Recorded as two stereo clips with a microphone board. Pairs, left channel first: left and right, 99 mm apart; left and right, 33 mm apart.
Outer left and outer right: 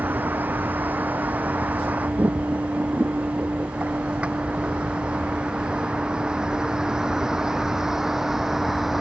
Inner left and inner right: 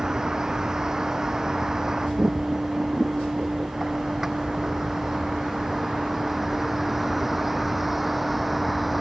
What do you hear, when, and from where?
0.0 s a vehicle: 20° right (ahead or behind); by 9.0 s centre (ahead or behind)